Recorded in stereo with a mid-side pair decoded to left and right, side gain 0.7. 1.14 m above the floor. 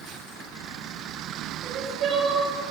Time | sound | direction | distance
1.6 | crying | 45° right | 5.5 m